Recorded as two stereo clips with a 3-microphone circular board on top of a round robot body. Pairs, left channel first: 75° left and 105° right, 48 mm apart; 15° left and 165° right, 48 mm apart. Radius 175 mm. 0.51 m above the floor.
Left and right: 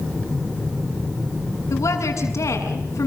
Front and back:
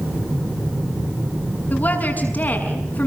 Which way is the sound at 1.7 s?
70° left.